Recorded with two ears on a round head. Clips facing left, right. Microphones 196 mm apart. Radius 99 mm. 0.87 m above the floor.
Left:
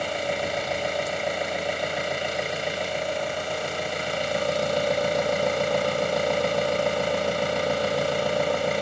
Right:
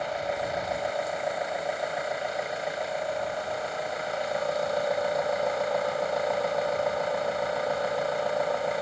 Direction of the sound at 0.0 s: 40° left (ahead or behind).